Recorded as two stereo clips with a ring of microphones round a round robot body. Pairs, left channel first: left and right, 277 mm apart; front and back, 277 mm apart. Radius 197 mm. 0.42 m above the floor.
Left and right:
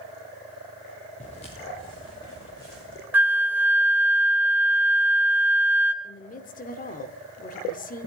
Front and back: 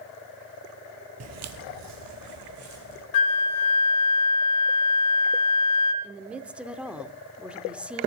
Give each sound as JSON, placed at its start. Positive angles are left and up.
{"t": 1.2, "sound": "footsteps", "azimuth_deg": 160, "distance_m": 0.7}
{"t": 3.1, "sound": "a flute", "azimuth_deg": -5, "distance_m": 0.6}
{"t": 6.0, "sound": "a woman speaking", "azimuth_deg": 100, "distance_m": 0.8}